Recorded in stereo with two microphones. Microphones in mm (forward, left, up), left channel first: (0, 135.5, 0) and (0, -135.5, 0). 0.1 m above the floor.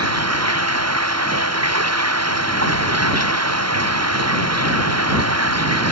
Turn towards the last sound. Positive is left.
turn(degrees=-65)  # may be behind; listen again after turning